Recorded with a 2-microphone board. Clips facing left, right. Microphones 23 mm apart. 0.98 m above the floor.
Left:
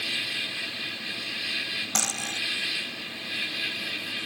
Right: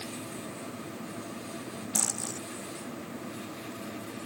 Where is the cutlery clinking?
50° left (ahead or behind).